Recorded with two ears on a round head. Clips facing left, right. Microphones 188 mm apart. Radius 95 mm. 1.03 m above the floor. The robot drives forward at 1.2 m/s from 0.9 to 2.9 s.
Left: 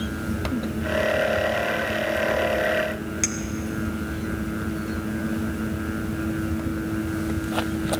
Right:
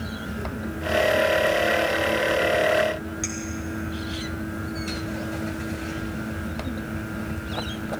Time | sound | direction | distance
3.2 | a clink | 30° left (ahead or behind) | 0.7 m